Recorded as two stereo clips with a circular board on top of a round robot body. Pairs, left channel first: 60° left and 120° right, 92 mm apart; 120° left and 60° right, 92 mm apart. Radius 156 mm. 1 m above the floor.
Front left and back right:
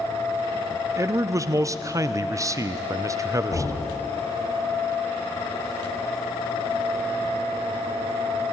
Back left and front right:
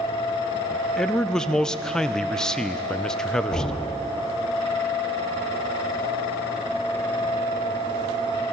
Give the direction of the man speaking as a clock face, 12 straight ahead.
5 o'clock.